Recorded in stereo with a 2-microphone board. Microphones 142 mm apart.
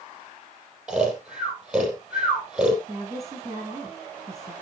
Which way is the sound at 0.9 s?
5° right (ahead or behind).